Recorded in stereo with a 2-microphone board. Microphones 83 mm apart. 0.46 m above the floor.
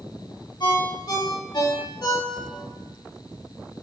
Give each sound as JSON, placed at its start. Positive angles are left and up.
{"t": 0.6, "sound": "a ringtone", "side_deg": 60, "distance_m": 1.3}